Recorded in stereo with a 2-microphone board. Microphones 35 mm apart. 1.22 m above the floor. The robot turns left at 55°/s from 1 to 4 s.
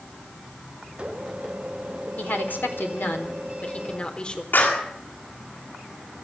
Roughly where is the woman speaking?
Behind left.